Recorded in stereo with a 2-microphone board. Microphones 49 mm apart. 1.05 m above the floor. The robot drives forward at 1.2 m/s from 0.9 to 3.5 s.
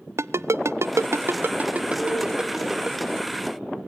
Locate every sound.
0.2 s a ringtone: 65° right (ahead or behind), 0.6 m; by 3.0 s 10° right (ahead or behind), 2.5 m
2.0 s a cowbell: 85° left, 5.5 m